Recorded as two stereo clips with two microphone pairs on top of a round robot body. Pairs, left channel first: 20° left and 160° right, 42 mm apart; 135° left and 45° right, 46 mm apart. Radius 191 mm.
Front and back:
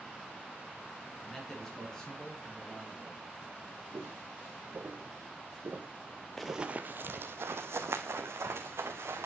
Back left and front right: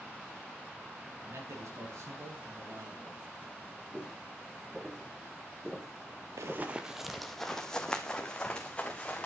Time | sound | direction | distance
1.2 | a man speaking | 55° right | 7 m
3.9 | footsteps | 125° right | 4.5 m
6.4 | running footsteps | 65° right | 0.6 m